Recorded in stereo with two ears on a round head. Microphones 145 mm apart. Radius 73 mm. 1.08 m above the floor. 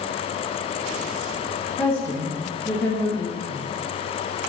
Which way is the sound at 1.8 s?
15° left (ahead or behind).